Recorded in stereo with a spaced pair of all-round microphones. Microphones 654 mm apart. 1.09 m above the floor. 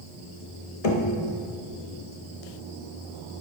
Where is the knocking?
70° left (ahead or behind), 1.3 m.